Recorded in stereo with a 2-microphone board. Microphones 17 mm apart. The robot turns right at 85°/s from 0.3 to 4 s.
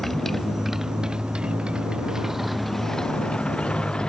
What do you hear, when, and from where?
0.0 s a motorcycle: 165° left; by 4.1 s 120° left